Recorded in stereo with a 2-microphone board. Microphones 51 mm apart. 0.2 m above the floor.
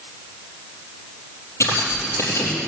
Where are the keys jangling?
75° left (ahead or behind), 4.5 m.